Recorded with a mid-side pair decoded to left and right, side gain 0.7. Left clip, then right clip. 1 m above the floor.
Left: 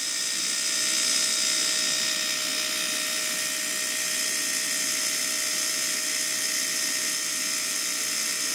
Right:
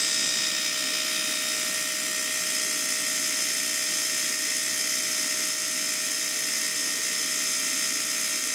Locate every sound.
Only background noise.